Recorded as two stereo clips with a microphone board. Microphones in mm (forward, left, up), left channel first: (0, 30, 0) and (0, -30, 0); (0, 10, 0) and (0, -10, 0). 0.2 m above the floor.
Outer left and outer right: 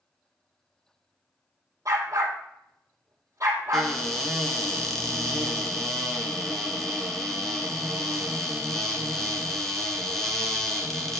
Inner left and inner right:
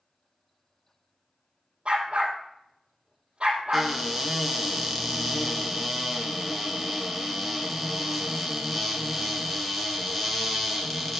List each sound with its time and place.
1.9 s a dog barking: 50° right (ahead or behind), 2.5 m
3.7 s a cupboard door: 5° left (ahead or behind), 1.5 m